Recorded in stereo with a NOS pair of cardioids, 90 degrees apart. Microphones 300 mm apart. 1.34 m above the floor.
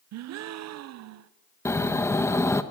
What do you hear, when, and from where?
0.1 s a gasp: 60° right, 0.6 m
1.6 s snoring: 10° left, 1.2 m